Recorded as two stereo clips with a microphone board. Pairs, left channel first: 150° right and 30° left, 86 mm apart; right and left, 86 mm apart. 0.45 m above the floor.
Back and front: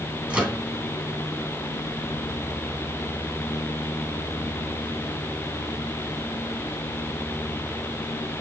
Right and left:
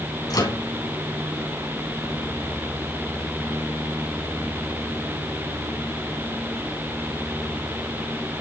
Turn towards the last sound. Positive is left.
turn(degrees=-50)